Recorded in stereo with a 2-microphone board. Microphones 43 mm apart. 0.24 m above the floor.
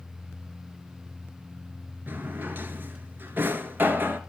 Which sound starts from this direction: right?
A drawer, at 2.1 s.